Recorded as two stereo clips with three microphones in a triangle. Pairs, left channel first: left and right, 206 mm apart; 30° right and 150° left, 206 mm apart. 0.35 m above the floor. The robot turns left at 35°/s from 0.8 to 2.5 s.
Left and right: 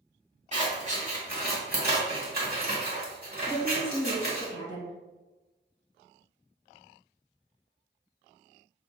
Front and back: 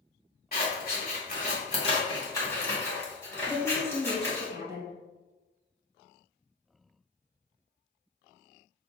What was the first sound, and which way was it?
Scissors, 45° right.